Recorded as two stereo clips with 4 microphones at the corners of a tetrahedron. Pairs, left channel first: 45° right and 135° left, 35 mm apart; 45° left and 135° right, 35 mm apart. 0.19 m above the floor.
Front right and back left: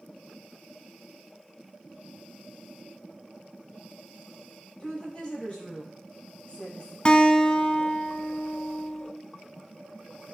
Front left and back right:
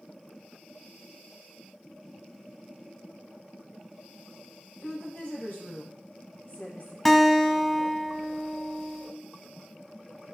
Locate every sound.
4.8 s a woman speaking: 15° left, 4.5 m
7.0 s a guitar: 35° right, 0.8 m